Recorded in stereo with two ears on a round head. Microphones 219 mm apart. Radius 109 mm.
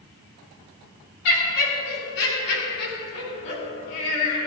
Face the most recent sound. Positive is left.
turn(degrees=85)